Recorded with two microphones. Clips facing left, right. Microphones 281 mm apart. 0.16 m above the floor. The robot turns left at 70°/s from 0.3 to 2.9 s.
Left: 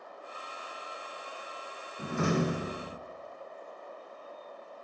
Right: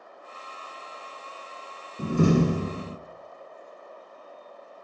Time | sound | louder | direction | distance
2.0 | a door slam | right 8 dB | 60° right | 1.0 m